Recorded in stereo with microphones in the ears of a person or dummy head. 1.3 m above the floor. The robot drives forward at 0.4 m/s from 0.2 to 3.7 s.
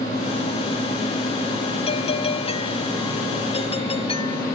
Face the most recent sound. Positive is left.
turn(degrees=35)  # may be behind; listen again after turning